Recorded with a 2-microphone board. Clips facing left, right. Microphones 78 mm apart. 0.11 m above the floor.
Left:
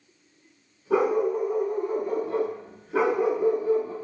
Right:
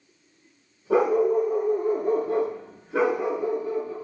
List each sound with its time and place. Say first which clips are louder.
0.9 s a dog barking: right 3 dB; 60° right (ahead or behind), 1.2 m; by 3.9 s 30° left (ahead or behind), 0.9 m